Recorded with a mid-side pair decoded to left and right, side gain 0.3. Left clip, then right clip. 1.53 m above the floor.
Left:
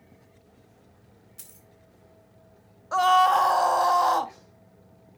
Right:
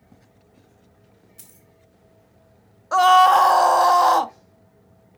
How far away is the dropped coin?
About 4 m.